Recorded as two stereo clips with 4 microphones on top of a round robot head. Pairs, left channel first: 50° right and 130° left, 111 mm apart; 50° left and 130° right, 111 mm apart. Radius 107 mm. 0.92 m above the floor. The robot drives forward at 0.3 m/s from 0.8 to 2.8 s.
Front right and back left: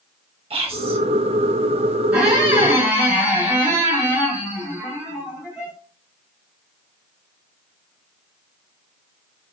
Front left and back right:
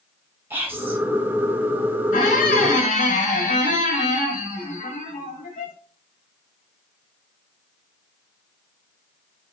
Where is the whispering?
160° left, 1.4 m.